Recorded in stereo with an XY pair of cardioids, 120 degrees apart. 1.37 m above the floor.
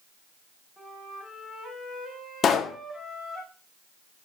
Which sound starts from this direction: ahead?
A flute, at 0.8 s.